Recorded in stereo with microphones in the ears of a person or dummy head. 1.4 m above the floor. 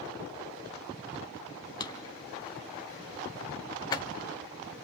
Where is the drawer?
25° left (ahead or behind), 1.1 m.